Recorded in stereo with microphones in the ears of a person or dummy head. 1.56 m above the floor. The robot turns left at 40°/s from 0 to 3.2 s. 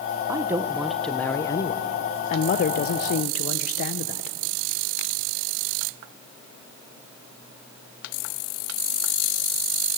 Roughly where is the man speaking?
Behind.